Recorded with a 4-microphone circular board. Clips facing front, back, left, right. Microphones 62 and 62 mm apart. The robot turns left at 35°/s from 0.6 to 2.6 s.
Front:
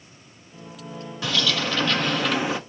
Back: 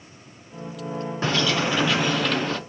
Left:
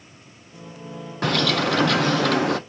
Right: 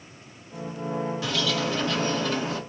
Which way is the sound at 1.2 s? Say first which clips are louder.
Back 2 dB, left 10 dB; 125° left.